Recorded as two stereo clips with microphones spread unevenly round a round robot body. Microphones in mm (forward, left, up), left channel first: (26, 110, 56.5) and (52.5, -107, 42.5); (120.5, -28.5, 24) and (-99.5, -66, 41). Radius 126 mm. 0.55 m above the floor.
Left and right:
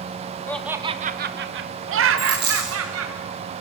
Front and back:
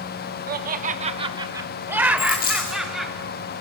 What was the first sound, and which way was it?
Laughter, 175° left.